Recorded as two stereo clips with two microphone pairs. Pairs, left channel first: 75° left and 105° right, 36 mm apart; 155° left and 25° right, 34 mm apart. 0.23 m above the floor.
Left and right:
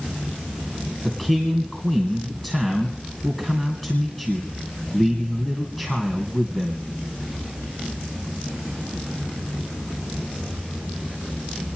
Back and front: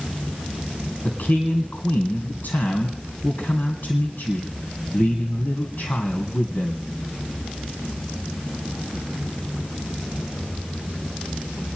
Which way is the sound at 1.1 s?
155° left.